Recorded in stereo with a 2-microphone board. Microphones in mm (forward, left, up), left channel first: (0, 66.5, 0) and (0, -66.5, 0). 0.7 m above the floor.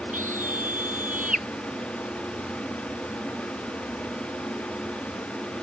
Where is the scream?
80° right; by 1.5 s 85° right.